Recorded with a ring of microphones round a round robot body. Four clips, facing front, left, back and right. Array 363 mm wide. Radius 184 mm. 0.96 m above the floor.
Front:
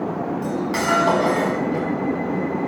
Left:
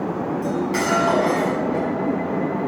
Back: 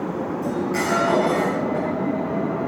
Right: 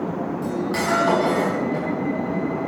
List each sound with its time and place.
0.4 s cutlery clinking: 10° right, 5 m